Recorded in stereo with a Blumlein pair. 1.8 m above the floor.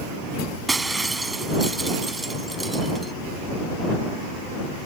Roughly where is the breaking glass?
Ahead.